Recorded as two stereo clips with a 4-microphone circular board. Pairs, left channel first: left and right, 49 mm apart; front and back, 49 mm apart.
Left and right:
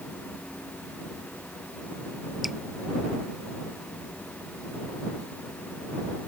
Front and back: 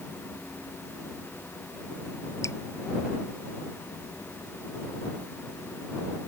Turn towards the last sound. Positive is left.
turn(degrees=-5)